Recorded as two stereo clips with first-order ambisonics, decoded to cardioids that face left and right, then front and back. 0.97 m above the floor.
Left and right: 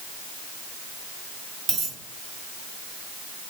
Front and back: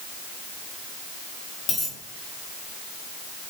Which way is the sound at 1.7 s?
70° right.